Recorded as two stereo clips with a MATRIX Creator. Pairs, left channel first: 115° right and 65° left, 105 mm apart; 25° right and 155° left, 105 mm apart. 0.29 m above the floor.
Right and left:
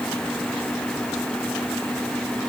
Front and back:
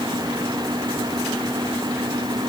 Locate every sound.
Only background noise.